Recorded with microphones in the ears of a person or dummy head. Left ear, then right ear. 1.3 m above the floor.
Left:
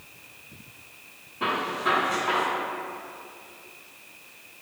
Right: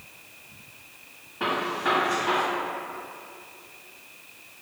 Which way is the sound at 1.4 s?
40° right (ahead or behind).